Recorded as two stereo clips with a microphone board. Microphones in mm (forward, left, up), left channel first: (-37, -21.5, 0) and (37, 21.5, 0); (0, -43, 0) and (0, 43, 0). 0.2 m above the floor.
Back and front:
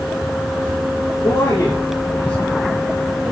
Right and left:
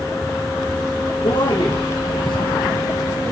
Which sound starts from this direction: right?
A man speaking, at 1.2 s.